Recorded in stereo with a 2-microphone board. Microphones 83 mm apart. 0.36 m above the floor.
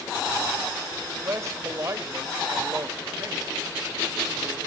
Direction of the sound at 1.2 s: 40° right (ahead or behind).